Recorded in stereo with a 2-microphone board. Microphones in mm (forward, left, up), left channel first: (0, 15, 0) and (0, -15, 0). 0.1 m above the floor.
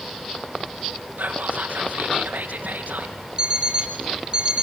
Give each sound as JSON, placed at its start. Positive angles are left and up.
{"t": 1.2, "sound": "whispering", "side_deg": -65, "distance_m": 3.5}
{"t": 3.4, "sound": "an alarm clock", "side_deg": -30, "distance_m": 3.0}